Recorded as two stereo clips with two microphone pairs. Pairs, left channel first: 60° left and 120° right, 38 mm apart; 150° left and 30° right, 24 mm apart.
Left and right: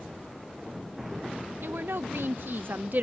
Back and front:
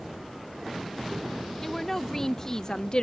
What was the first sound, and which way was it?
A woman speaking, 130° right.